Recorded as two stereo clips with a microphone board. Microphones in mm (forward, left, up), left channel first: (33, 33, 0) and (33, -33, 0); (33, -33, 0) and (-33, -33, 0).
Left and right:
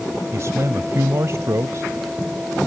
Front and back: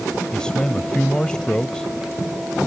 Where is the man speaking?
75° right.